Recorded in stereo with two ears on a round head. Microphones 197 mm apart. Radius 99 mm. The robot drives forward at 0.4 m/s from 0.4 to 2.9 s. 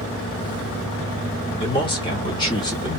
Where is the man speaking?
25° left (ahead or behind), 1.3 m; by 3.0 s 20° left (ahead or behind), 1.6 m.